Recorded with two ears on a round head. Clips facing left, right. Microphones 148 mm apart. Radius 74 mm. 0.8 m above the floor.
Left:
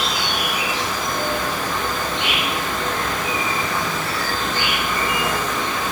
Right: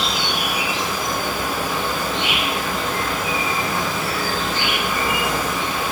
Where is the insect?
30° right (ahead or behind), 7 m.